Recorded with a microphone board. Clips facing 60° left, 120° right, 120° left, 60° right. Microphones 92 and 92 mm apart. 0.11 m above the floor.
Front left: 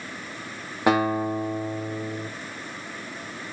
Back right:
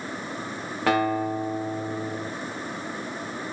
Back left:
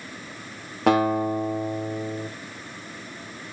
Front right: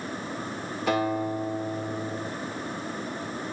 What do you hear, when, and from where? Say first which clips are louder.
0.9 s a guitar: front left 1 dB, back left 6 dB; 135° left, 4.5 m